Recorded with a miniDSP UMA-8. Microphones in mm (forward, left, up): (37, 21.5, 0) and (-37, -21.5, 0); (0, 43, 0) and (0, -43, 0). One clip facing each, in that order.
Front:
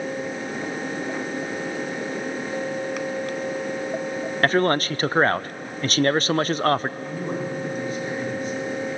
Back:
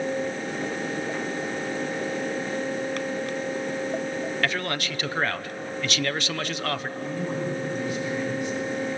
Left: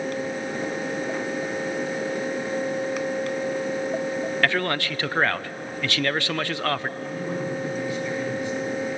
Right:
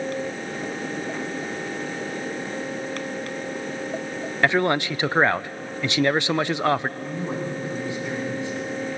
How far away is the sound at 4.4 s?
About 0.5 m.